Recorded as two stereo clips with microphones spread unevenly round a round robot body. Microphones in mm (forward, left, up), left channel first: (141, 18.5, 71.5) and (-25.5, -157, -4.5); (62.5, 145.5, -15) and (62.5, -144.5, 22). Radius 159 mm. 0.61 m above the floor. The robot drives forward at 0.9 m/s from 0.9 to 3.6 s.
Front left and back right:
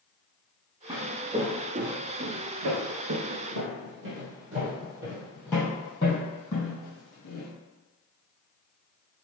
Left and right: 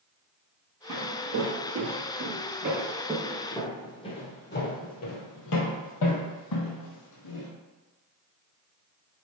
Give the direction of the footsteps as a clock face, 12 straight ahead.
2 o'clock.